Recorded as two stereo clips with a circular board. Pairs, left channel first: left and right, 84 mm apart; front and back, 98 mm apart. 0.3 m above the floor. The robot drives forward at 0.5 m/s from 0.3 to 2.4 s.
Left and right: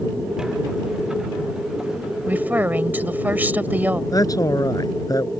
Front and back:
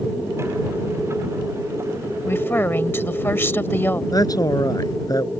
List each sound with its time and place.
2.3 s a woman speaking: 40° right; by 4.0 s 45° right
4.1 s a man speaking: 50° left